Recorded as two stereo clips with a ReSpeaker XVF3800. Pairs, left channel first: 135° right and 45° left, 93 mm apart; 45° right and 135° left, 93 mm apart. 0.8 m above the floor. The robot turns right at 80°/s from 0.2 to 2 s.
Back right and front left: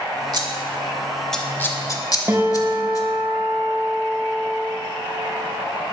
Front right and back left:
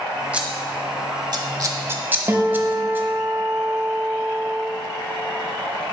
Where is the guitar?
90° left, 0.8 m.